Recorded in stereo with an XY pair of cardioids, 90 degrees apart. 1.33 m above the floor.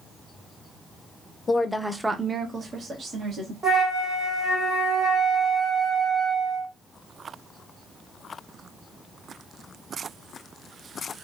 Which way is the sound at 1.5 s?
35° left.